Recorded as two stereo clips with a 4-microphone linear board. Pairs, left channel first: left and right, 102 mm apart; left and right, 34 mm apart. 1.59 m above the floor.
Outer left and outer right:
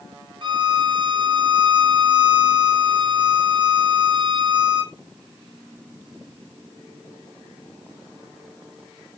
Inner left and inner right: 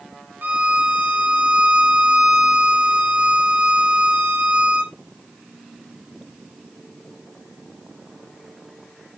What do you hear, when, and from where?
0.4 s a violin: 50° right (ahead or behind), 0.8 m